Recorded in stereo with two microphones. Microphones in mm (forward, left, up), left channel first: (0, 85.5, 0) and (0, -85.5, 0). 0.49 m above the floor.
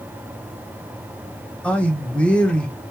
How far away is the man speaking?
About 0.8 m.